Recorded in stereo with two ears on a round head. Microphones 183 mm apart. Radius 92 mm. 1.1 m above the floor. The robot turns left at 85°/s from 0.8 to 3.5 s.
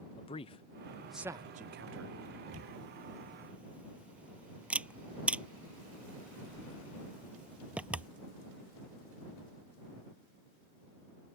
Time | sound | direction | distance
0.2 | a man speaking | 25° left (ahead or behind) | ?
2.5 | a camera shutter | 90° right | ?